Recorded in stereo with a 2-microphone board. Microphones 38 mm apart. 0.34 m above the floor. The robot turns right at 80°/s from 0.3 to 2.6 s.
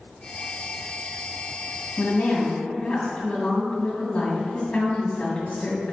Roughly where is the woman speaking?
Left.